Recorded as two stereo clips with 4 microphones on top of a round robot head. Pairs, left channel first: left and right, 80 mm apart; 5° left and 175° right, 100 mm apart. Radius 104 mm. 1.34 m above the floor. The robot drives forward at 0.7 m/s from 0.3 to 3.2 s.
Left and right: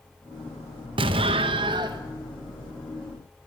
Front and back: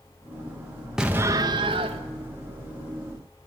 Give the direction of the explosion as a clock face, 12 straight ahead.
3 o'clock.